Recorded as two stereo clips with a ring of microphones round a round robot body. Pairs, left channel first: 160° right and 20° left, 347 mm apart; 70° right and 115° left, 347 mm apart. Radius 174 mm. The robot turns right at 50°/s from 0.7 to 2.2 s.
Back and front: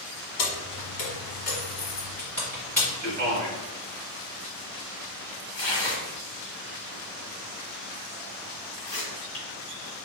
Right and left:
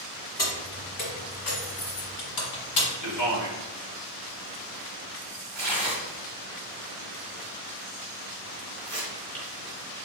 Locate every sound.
0.4 s keys jangling: 145° right, 1.7 m; by 2.9 s 70° right, 1.7 m
3.0 s a man speaking: 75° right, 1.8 m
5.5 s tearing paper: 150° right, 1.7 m